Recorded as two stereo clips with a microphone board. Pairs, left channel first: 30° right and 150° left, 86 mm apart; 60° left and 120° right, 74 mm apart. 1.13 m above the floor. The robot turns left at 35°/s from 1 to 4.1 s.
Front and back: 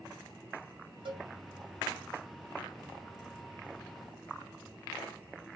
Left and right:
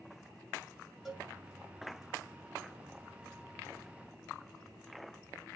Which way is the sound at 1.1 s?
150° left.